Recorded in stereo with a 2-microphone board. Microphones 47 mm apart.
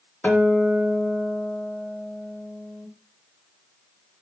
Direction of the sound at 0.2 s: 30° left (ahead or behind).